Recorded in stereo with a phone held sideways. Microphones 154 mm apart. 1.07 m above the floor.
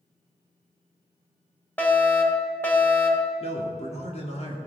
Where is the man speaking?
45° left (ahead or behind), 3 m.